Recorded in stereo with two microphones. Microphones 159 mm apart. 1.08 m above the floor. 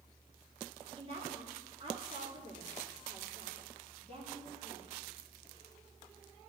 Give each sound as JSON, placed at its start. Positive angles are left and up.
{"t": 1.0, "sound": "a woman speaking", "side_deg": -40, "distance_m": 3.0}